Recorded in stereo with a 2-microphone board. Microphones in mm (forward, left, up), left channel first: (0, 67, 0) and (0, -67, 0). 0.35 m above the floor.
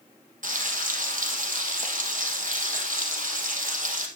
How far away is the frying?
About 2 m.